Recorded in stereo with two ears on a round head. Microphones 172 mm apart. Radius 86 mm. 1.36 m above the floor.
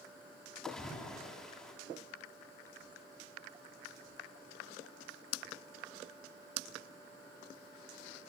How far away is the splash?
About 6 m.